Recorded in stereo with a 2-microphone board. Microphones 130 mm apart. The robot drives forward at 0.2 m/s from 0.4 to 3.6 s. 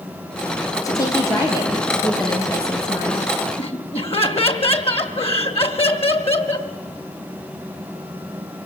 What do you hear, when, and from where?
0.8 s a woman speaking: 30° left (ahead or behind), 6.5 m; by 3.3 s 25° left (ahead or behind), 6.5 m
3.6 s laughter: 45° left (ahead or behind), 2 m